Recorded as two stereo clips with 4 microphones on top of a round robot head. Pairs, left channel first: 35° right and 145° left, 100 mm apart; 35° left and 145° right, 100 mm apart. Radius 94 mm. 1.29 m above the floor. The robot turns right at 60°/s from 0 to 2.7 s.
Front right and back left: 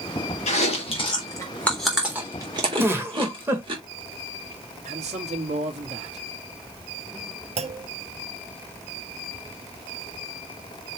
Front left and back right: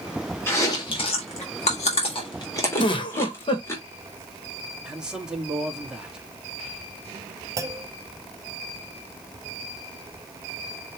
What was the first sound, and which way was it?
Chewing, 30° right.